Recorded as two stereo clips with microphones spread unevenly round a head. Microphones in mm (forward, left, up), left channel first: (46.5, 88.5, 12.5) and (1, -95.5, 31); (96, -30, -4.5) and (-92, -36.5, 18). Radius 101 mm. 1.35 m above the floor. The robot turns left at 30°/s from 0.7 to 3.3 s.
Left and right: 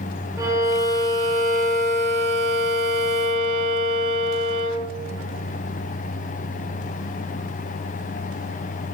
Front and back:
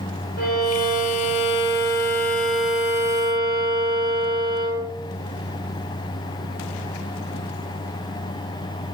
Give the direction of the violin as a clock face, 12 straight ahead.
1 o'clock.